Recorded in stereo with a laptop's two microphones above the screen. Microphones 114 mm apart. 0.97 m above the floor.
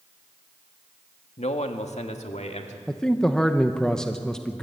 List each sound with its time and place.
1.4 s a man speaking: 70° left (ahead or behind), 1.4 m; by 2.8 s 75° left (ahead or behind), 2.5 m
2.9 s a man speaking: 5° left (ahead or behind), 0.8 m